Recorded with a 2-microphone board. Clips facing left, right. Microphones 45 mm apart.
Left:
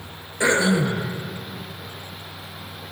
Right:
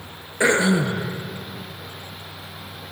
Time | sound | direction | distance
0.4 | throat clearing | 25° right (ahead or behind) | 1.0 m